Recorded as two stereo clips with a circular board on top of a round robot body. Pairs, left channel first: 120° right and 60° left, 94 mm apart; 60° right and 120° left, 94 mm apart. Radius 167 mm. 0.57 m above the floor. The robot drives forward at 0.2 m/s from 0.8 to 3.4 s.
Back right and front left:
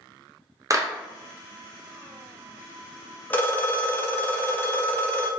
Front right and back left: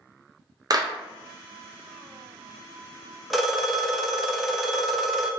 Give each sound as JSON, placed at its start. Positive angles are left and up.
{"t": 0.7, "sound": "a clap", "azimuth_deg": 100, "distance_m": 0.6}
{"t": 3.3, "sound": "a phone ringing", "azimuth_deg": -150, "distance_m": 0.7}